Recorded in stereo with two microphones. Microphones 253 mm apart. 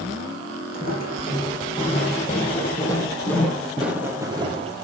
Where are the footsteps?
35° left (ahead or behind), 4 m; by 4.8 s 25° right (ahead or behind), 2 m.